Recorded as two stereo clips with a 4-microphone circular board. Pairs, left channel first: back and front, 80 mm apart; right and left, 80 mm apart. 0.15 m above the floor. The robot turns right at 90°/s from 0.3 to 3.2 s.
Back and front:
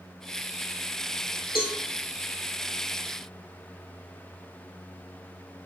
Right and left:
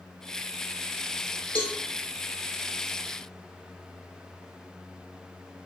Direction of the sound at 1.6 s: 165° right.